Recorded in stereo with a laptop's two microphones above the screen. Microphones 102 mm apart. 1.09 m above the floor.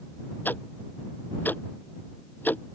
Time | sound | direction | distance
0.5 | ticking | 15° left (ahead or behind) | ?